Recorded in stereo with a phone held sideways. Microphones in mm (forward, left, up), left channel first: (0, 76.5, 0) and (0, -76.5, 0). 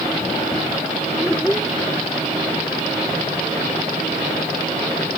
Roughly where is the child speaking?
Centre.